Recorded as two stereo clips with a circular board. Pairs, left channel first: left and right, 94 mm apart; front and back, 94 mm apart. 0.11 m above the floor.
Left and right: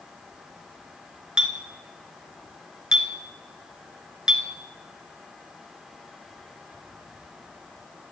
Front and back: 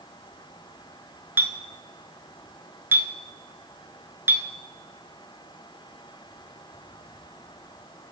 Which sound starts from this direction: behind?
A clink, at 1.4 s.